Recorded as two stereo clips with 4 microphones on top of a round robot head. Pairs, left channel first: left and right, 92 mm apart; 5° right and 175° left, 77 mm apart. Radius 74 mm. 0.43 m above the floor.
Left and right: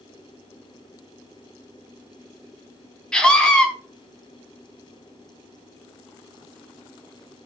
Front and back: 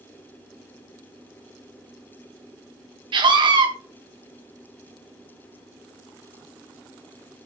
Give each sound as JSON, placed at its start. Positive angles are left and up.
{"t": 3.1, "sound": "a scream", "azimuth_deg": 170, "distance_m": 3.5}